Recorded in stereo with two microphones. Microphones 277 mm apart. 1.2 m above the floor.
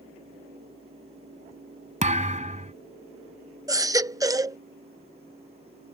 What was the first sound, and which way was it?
A thud, 25° right (ahead or behind).